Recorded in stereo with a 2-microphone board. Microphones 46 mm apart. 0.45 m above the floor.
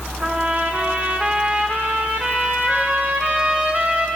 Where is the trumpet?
35° right (ahead or behind), 1.4 m.